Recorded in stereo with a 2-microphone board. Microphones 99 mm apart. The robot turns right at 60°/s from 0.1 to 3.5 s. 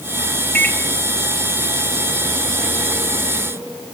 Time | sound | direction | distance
0.6 | a microwave | 25° left (ahead or behind) | 2.5 m